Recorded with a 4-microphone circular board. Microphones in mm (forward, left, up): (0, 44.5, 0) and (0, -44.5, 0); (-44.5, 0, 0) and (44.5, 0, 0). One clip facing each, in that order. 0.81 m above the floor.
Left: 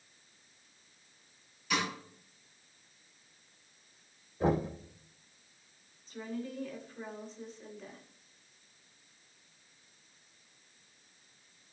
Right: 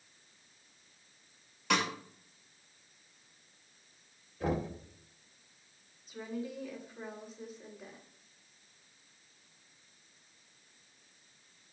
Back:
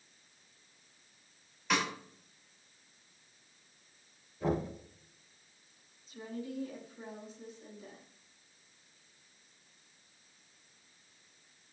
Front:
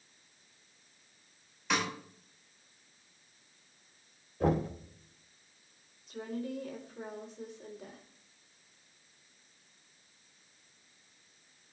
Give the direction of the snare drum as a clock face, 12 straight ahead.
3 o'clock.